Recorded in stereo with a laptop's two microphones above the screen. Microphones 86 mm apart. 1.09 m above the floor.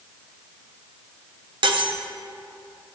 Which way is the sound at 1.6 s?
60° right (ahead or behind).